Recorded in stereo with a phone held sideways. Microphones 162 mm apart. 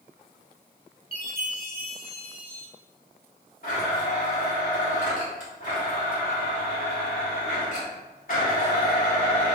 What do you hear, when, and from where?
1.1 s a chime: 65° right (ahead or behind), 1.0 m
3.6 s a blender: 60° left (ahead or behind), 1.2 m